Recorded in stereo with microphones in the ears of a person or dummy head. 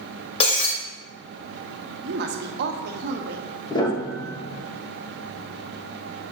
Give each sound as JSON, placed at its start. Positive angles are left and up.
{"t": 0.4, "sound": "breaking glass", "side_deg": 35, "distance_m": 1.8}
{"t": 2.0, "sound": "a woman speaking", "side_deg": -55, "distance_m": 0.9}
{"t": 3.7, "sound": "a piano", "side_deg": 25, "distance_m": 1.6}